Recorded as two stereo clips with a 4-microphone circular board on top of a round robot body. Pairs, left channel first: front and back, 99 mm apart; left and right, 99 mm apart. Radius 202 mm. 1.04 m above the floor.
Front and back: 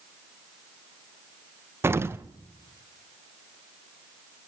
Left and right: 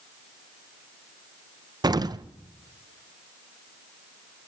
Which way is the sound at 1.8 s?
125° right.